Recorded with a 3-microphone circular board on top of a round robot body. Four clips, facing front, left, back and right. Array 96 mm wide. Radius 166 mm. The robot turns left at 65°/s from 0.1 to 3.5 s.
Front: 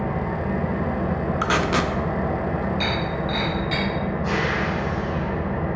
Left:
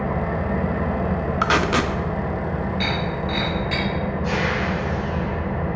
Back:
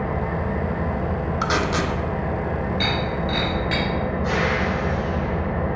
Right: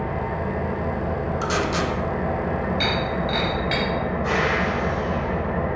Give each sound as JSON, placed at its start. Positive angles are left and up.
{"t": 0.0, "sound": "an engine running", "azimuth_deg": 110, "distance_m": 1.2}
{"t": 1.4, "sound": "tape being pulled", "azimuth_deg": 80, "distance_m": 0.5}
{"t": 2.8, "sound": "breaking glass", "azimuth_deg": -100, "distance_m": 2.0}